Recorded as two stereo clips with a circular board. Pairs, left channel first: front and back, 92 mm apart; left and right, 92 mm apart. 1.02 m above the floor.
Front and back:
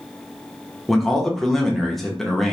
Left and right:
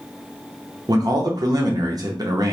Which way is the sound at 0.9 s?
90° right.